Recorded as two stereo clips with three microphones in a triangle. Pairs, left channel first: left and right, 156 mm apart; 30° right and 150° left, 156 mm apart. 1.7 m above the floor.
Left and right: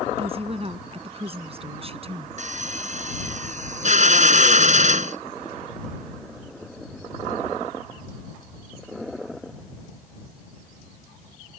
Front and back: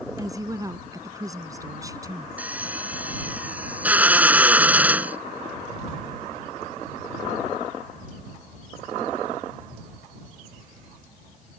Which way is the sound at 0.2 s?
140° right.